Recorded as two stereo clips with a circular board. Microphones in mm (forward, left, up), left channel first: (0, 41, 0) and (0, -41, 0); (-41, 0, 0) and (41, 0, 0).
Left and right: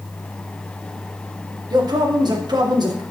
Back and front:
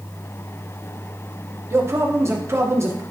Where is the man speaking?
55° right, 1.2 m.